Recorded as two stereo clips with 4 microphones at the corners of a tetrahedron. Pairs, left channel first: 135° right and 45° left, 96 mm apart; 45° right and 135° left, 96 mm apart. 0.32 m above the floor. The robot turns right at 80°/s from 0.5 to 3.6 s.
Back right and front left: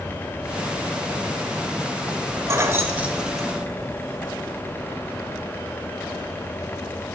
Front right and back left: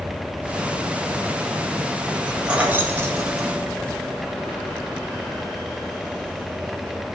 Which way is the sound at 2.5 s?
65° left.